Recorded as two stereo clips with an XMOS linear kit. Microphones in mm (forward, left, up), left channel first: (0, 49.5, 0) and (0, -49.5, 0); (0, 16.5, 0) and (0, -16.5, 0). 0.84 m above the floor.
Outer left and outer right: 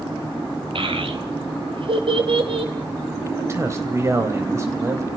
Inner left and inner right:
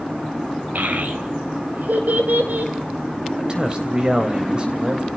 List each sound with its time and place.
0.8 s a child speaking: 60° right (ahead or behind), 3 m
3.3 s a man speaking: 30° right (ahead or behind), 4.5 m